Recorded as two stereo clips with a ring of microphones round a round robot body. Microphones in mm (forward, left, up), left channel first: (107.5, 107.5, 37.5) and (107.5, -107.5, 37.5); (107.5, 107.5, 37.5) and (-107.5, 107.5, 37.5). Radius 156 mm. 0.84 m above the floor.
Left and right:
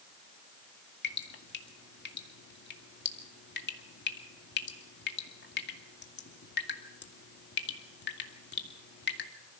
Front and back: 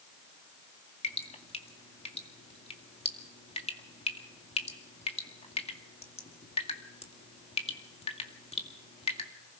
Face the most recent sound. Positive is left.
turn(degrees=60)